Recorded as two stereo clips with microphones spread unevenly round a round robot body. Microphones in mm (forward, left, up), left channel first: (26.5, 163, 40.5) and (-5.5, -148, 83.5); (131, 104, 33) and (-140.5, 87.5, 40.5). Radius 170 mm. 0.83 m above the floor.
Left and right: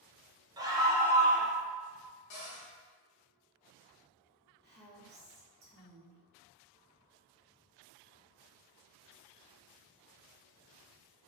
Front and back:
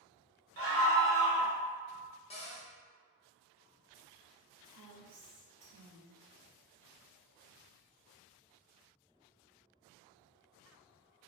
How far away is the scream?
About 1.0 m.